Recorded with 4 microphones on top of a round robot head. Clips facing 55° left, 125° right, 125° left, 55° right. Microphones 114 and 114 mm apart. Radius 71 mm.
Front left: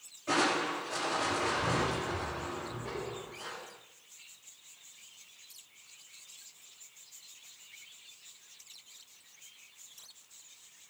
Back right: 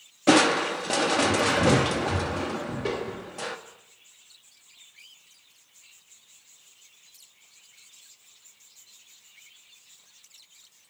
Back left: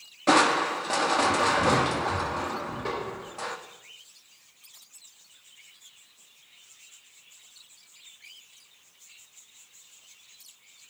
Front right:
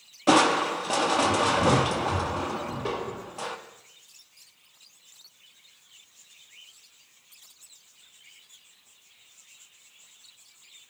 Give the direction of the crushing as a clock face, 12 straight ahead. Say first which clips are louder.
Back right 10 dB, front right 1 dB; 4 o'clock.